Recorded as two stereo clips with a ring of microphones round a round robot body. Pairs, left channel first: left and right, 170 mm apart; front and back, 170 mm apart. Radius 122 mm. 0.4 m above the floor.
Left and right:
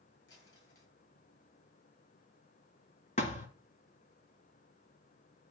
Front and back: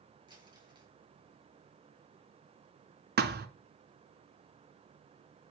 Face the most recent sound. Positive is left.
turn(degrees=155)